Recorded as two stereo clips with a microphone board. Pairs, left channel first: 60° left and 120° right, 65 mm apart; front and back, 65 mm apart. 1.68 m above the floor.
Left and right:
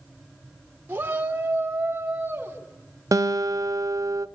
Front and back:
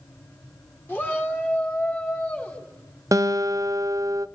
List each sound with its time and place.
0.9 s a shout: 60° right, 1.8 m
3.1 s a guitar: 150° right, 0.8 m